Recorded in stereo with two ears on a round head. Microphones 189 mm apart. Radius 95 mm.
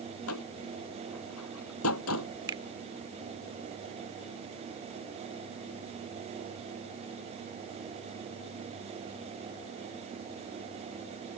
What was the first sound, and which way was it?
A door slam, 80° left.